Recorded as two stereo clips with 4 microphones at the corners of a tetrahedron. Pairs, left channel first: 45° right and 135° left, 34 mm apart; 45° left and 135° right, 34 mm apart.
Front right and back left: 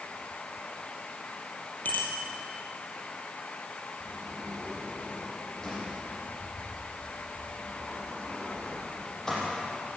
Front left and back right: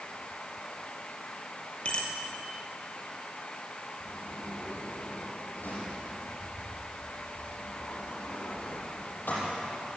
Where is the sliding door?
30° left, 8 m.